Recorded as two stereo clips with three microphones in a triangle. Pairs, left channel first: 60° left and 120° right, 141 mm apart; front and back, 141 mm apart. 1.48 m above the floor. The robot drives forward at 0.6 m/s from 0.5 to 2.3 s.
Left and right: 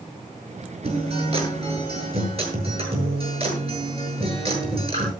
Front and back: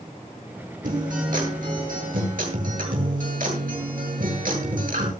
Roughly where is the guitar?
Behind.